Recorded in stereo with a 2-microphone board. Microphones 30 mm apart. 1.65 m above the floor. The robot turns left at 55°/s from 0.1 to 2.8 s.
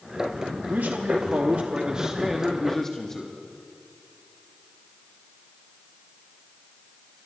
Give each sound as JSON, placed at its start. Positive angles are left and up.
{"t": 0.7, "sound": "a man speaking", "azimuth_deg": -80, "distance_m": 0.8}